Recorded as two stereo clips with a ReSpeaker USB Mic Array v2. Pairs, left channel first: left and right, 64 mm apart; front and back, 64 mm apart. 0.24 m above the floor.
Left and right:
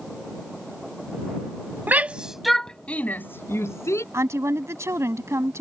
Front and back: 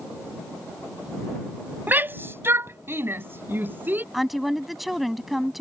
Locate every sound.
1.9 s a shout: 135° right; by 4.0 s 120° left
4.1 s a woman speaking: 95° right